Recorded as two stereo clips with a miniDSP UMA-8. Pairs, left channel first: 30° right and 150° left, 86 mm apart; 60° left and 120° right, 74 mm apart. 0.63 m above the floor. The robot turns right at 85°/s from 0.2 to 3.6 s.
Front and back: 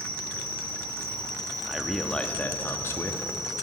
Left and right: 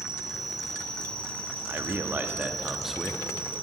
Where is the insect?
60° right, 1.8 m; by 3.6 s 130° right, 1.8 m.